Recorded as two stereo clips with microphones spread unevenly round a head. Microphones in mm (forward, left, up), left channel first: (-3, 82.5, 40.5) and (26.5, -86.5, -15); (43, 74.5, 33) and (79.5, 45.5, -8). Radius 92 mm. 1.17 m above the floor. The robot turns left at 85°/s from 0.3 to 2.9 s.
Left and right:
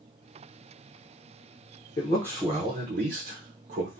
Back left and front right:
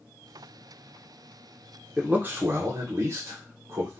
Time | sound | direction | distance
2.0 | a man speaking | 40° left | 0.6 m